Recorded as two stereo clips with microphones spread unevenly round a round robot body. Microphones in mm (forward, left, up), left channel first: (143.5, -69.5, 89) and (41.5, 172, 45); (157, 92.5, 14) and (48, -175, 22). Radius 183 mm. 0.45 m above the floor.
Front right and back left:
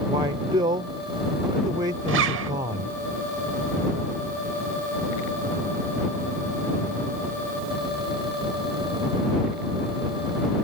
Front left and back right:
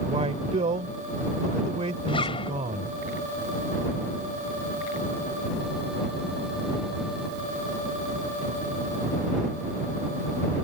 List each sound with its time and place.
0.1 s a man speaking: straight behind
2.1 s a zipper: 140° left